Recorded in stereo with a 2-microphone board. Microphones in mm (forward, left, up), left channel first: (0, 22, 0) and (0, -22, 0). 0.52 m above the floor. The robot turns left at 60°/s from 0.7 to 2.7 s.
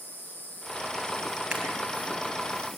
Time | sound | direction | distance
0.0 | an insect | 120° left | 5.5 m
1.5 | a camera shutter | 15° right (ahead or behind) | 4 m